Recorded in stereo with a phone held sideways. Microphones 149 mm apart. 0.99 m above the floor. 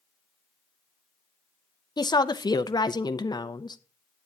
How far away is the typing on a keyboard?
No typing on a keyboard in this recording.